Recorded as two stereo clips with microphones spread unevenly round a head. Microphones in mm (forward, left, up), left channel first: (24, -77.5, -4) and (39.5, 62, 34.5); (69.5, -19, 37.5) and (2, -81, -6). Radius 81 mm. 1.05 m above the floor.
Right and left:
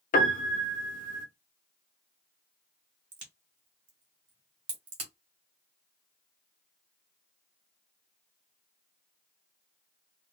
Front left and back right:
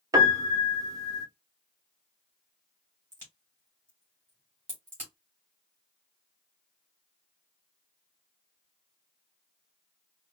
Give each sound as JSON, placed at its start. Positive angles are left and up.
{"t": 0.1, "sound": "a piano", "azimuth_deg": -75, "distance_m": 0.8}
{"t": 3.1, "sound": "a crack", "azimuth_deg": 140, "distance_m": 1.6}